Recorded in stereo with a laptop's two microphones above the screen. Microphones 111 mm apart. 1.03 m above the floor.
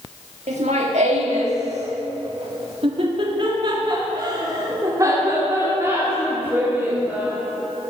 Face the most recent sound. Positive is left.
turn(degrees=-15)  # may be behind; listen again after turning